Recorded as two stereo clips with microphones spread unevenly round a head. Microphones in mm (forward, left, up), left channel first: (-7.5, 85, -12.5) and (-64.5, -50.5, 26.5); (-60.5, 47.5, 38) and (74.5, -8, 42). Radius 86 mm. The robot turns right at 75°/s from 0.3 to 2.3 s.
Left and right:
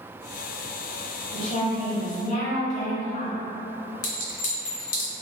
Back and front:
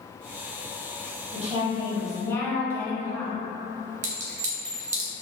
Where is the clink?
15° left, 0.6 m.